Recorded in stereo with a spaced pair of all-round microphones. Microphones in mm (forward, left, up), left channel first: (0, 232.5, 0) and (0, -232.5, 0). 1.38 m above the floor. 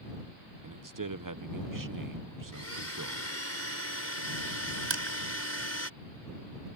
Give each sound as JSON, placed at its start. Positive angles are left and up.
{"t": 0.6, "sound": "a man speaking", "side_deg": -45}
{"t": 2.5, "sound": "a blender", "side_deg": 30}
{"t": 4.9, "sound": "crushing", "side_deg": -65}